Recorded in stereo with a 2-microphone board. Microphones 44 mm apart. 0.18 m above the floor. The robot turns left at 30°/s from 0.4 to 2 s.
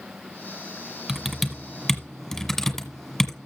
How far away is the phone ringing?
No phone ringing in this recording.